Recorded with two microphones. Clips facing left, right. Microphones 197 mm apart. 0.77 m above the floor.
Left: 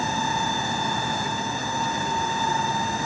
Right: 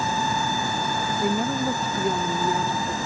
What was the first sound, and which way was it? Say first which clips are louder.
A woman speaking: right 7 dB; 60° right (ahead or behind).